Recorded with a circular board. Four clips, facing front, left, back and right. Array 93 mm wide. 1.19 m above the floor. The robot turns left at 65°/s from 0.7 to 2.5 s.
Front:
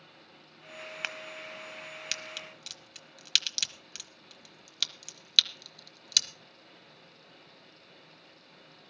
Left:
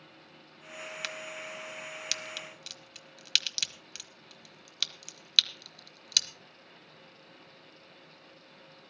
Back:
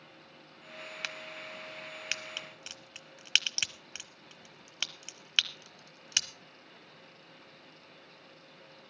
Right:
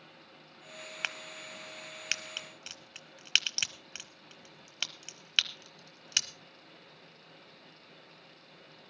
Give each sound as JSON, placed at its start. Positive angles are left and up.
{"t": 1.0, "sound": "a crack", "azimuth_deg": -50, "distance_m": 1.1}